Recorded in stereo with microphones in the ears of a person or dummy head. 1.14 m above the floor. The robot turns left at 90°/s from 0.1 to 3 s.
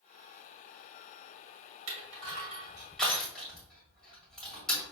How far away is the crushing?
About 1.9 m.